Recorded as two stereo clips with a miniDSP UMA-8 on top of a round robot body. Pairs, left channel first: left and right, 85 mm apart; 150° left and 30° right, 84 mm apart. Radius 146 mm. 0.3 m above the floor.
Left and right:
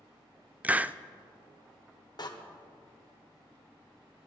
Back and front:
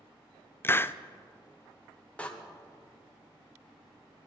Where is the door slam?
80° left, 1.5 m.